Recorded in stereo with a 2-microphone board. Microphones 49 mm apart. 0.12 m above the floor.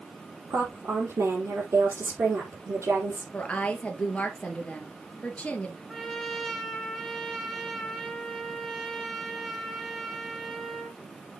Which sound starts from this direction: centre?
A trumpet, at 5.9 s.